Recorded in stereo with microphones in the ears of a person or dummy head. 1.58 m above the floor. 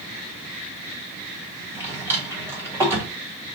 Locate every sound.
1.7 s a drawer: 10° right (ahead or behind), 1.5 m